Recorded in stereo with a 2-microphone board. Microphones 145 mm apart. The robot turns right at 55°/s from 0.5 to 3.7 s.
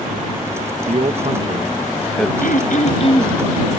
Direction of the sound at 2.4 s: 100° left.